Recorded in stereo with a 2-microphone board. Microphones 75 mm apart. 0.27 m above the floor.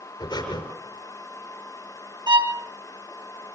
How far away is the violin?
About 1.2 m.